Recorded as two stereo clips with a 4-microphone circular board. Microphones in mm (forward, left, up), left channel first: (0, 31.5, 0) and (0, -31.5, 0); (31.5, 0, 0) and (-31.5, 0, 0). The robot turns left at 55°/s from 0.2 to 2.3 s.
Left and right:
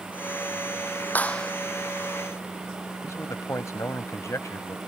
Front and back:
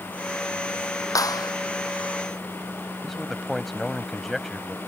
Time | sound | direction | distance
1.1 | a clap | 25° left | ?
3.0 | a man speaking | 85° left | ?